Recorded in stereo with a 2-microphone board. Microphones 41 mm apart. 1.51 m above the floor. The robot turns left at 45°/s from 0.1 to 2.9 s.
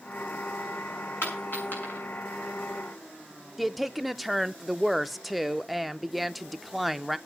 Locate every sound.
1.2 s a dropped coin: 70° left (ahead or behind), 6.5 m; by 2.0 s 35° left (ahead or behind), 6.5 m
3.6 s a woman speaking: 5° right (ahead or behind), 0.7 m